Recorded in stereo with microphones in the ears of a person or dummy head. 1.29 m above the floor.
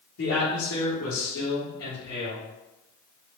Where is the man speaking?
75° left (ahead or behind), 1.2 m; by 2.4 s 40° left (ahead or behind), 1.7 m.